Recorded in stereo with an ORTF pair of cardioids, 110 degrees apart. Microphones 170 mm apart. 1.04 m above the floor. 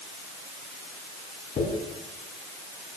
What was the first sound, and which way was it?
A dropped coin, 45° left.